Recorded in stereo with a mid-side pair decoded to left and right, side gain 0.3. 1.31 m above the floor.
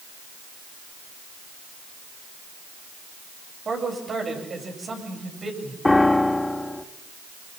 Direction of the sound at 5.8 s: 20° left.